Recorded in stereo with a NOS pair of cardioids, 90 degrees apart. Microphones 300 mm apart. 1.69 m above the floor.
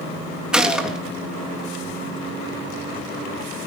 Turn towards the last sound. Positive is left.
turn(degrees=-5)